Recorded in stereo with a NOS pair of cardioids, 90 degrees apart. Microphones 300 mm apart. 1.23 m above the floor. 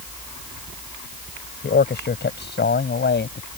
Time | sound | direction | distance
1.6 | a man speaking | 35° left | ?